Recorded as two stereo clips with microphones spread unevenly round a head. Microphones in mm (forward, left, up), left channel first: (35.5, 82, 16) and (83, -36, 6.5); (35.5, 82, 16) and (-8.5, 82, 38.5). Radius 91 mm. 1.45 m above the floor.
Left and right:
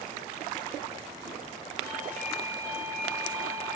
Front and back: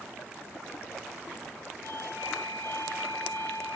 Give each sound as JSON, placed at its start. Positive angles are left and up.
{"t": 1.8, "sound": "a doorbell", "azimuth_deg": -170, "distance_m": 3.0}